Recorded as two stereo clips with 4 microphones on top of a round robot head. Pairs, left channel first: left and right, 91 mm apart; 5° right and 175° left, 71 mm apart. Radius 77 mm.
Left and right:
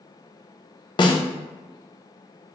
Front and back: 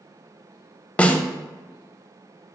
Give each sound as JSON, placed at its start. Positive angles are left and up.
{"t": 1.0, "sound": "a snare drum", "azimuth_deg": 65, "distance_m": 0.8}